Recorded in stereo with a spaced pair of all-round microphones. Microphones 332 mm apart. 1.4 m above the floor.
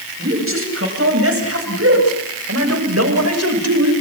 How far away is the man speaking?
About 9.5 m.